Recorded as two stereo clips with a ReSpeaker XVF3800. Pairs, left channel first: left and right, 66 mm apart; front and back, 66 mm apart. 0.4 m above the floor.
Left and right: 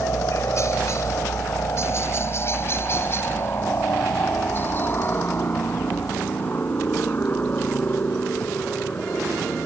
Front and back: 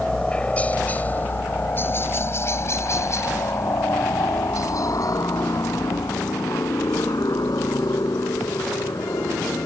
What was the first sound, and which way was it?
A helicopter, 75° left.